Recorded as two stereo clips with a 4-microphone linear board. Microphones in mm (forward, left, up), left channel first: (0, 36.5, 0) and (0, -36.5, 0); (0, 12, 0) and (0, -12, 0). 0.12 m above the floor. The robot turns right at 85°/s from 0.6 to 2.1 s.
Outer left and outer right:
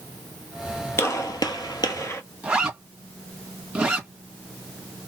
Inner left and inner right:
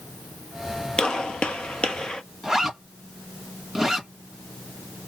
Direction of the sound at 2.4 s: 10° right (ahead or behind).